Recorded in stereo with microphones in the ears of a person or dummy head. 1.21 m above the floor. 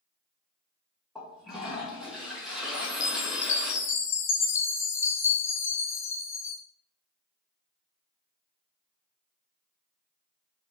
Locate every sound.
1.1 s a toilet flushing: 5° left (ahead or behind), 1.6 m
2.7 s a chime: 15° left (ahead or behind), 0.8 m